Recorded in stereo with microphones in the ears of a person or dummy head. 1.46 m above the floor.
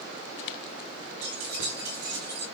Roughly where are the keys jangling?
Right.